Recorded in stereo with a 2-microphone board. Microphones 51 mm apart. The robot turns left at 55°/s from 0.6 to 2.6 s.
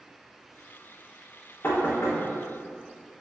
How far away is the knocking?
About 0.6 m.